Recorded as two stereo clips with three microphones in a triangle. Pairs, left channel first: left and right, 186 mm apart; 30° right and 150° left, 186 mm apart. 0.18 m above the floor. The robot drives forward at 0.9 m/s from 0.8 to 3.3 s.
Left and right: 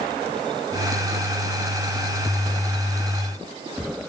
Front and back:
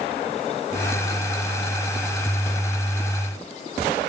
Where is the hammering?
No hammering in this recording.